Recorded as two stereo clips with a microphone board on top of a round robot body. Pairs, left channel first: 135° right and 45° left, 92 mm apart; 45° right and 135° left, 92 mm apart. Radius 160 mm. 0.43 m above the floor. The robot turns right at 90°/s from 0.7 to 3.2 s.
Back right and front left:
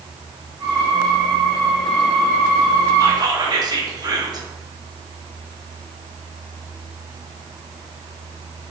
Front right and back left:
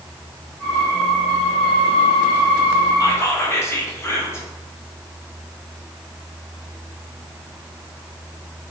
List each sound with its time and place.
3.0 s whispering: 5° right, 1.5 m; by 4.5 s 15° left, 1.5 m